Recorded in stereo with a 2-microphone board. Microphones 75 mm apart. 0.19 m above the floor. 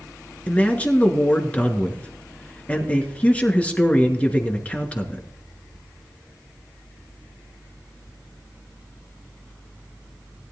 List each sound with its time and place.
0.5 s a man speaking: 20° left (ahead or behind), 2 m